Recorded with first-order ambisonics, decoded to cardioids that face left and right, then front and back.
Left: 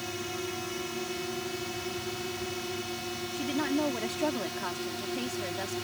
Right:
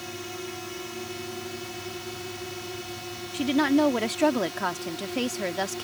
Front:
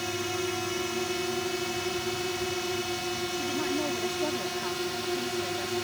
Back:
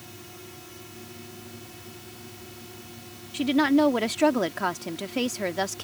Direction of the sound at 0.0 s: 10° left.